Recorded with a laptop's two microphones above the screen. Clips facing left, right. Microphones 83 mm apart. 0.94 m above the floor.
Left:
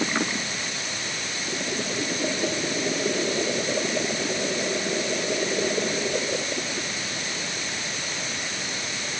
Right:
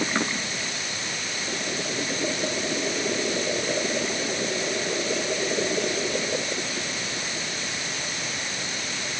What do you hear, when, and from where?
Only background noise.